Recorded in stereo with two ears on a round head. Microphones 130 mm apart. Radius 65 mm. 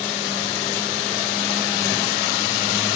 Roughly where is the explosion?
I don't hear an explosion.